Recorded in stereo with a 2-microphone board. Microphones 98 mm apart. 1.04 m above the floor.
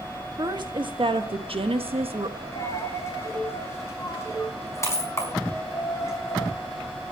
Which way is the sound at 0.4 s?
50° right (ahead or behind).